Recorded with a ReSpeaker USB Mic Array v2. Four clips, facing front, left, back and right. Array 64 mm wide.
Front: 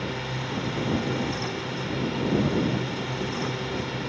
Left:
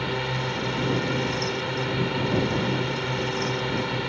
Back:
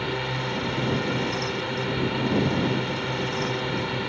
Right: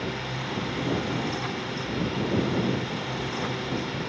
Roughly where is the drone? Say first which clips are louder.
Left 4 dB, back 3 dB; behind left.